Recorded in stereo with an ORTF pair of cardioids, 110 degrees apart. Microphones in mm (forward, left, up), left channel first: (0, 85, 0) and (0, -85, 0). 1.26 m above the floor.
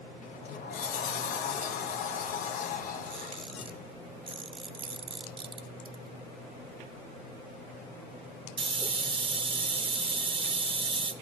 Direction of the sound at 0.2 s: 50° left.